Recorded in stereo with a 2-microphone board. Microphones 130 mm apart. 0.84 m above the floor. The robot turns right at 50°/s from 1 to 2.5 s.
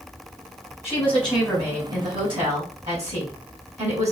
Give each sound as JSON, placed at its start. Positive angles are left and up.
{"t": 0.8, "sound": "a woman speaking", "azimuth_deg": 160, "distance_m": 3.0}